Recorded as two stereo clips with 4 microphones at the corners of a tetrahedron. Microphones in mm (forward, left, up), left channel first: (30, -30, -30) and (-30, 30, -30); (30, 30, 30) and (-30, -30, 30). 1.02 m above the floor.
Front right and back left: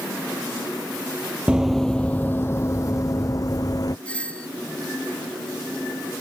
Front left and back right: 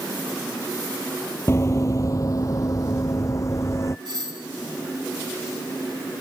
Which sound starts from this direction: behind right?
A doorbell, at 4.0 s.